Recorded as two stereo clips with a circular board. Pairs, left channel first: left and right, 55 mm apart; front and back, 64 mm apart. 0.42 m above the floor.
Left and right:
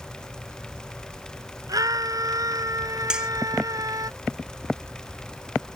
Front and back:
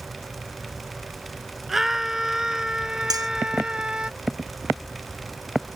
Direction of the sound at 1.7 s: 95° right.